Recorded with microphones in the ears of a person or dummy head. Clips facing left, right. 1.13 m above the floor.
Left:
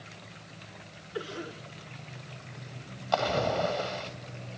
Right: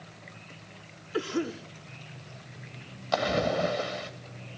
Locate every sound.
1.1 s a cough: 80° right, 3.5 m
3.1 s a splash: 25° right (ahead or behind), 2 m